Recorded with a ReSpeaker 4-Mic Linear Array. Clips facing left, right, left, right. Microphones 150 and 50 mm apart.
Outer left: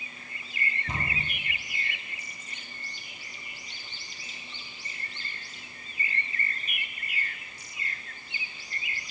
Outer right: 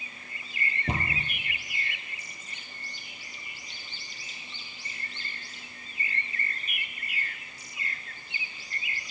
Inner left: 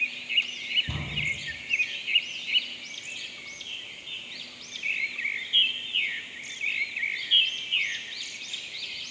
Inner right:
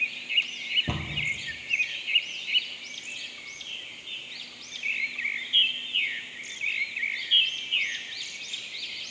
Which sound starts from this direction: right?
A cupboard door, at 0.9 s.